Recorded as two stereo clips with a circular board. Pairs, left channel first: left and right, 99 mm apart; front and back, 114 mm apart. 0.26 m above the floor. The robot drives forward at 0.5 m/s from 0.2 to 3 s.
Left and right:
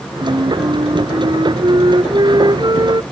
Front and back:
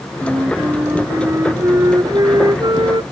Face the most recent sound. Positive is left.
turn(degrees=-130)